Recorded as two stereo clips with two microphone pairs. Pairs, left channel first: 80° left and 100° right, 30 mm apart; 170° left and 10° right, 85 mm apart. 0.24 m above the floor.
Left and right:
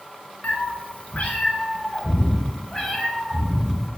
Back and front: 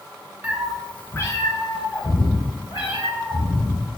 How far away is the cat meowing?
About 0.5 m.